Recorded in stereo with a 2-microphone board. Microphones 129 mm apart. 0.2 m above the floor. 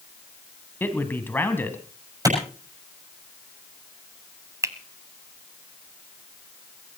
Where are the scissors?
No scissors in this recording.